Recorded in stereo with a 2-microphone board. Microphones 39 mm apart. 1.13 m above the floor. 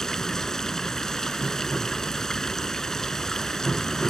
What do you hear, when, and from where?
0.0 s running water: 15° left (ahead or behind)